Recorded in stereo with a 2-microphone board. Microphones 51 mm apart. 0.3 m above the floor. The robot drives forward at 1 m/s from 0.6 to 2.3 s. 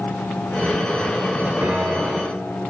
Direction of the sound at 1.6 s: 50° right (ahead or behind).